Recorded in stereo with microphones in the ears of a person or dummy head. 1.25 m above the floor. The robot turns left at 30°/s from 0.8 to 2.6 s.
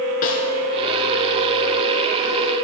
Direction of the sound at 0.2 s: 50° left (ahead or behind).